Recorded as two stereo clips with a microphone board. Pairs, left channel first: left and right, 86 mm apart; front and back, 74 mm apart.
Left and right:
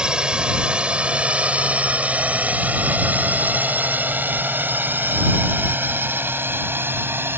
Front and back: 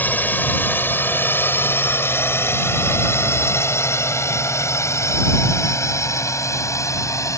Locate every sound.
0.0 s a drone: 25° right; by 7.4 s 30° right